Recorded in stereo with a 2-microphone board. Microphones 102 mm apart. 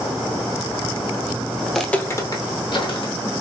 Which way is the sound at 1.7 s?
5° right (ahead or behind).